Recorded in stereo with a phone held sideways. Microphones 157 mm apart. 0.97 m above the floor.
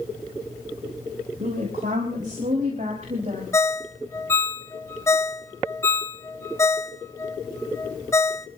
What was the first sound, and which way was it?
A woman speaking, 60° right (ahead or behind).